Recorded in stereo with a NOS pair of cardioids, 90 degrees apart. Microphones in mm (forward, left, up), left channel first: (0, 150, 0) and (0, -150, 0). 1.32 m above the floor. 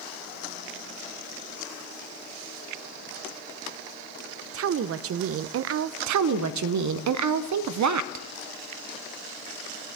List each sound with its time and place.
4.5 s a woman speaking: 50° right, 0.7 m
6.1 s a woman speaking: 70° right, 0.7 m